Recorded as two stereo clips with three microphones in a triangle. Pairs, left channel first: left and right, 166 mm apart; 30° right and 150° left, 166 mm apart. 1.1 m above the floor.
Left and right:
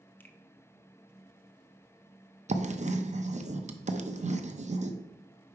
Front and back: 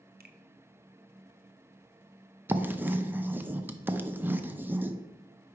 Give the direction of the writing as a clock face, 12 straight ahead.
4 o'clock.